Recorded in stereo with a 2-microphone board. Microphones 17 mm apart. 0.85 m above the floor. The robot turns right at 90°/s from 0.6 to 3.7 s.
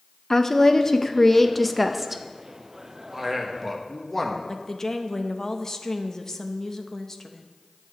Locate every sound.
0.3 s a woman speaking: 25° left (ahead or behind), 0.6 m; by 2.2 s 15° right (ahead or behind), 0.6 m
3.1 s a man speaking: 35° right, 1.2 m; by 4.4 s 20° left, 1.2 m
4.5 s a woman speaking: 25° left (ahead or behind), 0.7 m